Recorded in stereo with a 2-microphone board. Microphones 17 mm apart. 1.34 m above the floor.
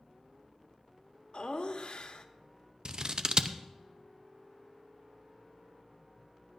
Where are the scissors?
45° right (ahead or behind), 0.6 m.